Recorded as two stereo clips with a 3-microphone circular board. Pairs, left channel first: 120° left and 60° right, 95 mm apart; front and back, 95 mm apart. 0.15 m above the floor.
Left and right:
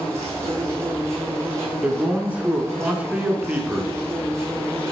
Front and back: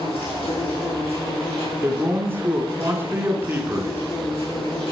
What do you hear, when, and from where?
0.0 s an insect: 5° left, 4.5 m
1.8 s a man speaking: 130° right, 1.6 m